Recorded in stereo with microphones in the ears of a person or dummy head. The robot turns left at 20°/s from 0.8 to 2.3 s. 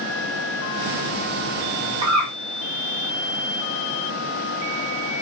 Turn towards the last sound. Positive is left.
turn(degrees=-20)  # may be behind; listen again after turning